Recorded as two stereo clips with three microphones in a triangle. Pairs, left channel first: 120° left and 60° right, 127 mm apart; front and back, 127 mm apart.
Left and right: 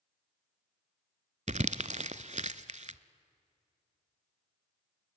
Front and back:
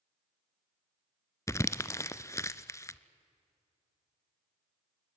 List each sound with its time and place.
1.5 s crumpling: 65° right, 0.6 m